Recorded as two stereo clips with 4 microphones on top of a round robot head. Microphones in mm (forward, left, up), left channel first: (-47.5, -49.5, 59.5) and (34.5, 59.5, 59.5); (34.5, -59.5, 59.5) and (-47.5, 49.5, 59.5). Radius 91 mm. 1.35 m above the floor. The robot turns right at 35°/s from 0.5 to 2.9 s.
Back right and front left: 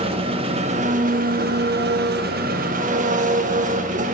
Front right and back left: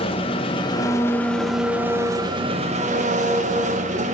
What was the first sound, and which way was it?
An engine running, straight ahead.